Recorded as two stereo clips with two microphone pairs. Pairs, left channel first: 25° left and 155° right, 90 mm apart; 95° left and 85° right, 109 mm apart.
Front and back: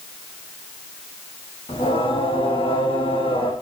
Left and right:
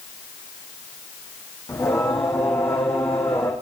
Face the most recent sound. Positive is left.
turn(degrees=30)